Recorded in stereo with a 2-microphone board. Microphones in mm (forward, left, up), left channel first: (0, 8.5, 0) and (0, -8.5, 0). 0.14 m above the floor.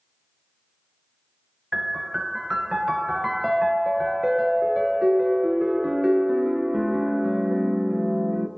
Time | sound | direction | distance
1.7 | a piano | 15° right (ahead or behind) | 0.6 m